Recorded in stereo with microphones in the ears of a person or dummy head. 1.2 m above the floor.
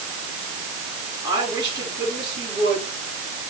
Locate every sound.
1.2 s a woman speaking: 20° right (ahead or behind), 9.5 m